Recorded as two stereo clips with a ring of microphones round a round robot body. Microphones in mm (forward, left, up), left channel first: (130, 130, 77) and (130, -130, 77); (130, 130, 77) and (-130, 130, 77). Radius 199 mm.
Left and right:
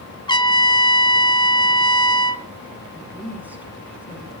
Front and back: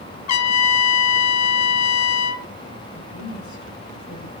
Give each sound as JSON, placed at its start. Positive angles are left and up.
{"t": 0.3, "sound": "a trumpet", "azimuth_deg": 15, "distance_m": 1.2}
{"t": 2.9, "sound": "a woman speaking", "azimuth_deg": -5, "distance_m": 6.0}